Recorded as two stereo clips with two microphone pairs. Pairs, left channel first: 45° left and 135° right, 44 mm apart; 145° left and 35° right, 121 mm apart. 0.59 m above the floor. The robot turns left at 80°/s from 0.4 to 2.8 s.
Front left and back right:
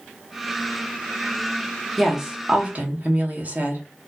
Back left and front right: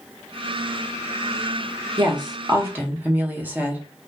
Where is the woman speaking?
40° right, 0.8 m; by 3.8 s 105° right, 0.8 m.